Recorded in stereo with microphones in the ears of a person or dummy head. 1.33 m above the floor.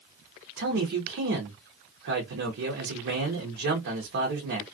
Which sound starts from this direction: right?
A man speaking, at 0.6 s.